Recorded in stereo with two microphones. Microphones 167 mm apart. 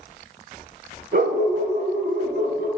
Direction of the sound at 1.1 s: 70° right (ahead or behind).